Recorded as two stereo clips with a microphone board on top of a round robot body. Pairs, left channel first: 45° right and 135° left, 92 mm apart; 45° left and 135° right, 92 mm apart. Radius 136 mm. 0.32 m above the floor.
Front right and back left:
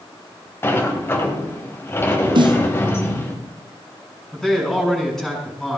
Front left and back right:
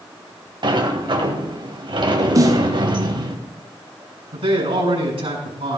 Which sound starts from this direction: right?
A sliding door, at 0.6 s.